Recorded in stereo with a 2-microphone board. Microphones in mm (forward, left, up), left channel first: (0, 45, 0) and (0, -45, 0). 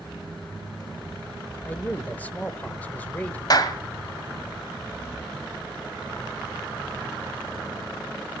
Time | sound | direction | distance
1.6 | a man speaking | 20° left (ahead or behind) | 1.1 m
3.5 | a clap | 45° left (ahead or behind) | 1.5 m